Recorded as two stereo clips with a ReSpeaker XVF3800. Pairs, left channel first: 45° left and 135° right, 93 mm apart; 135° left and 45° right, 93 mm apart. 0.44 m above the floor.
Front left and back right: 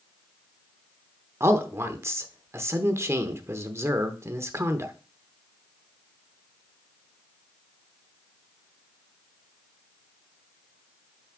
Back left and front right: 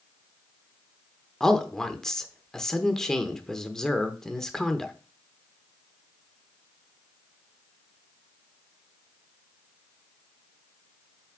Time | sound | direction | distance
1.4 | a man speaking | 145° right | 0.8 m